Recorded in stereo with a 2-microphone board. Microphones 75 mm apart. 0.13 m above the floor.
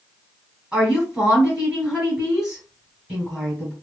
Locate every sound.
0.7 s a woman speaking: 10° right (ahead or behind), 2 m